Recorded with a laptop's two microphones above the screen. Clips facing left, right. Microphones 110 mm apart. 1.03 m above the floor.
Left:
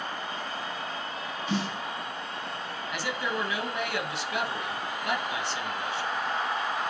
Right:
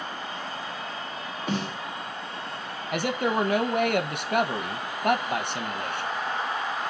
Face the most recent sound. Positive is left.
turn(degrees=-55)  # may be behind; listen again after turning